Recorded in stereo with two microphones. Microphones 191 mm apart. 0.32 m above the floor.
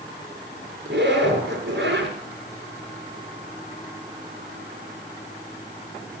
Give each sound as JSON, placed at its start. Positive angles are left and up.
{"t": 0.8, "sound": "a zipper", "side_deg": -70, "distance_m": 4.5}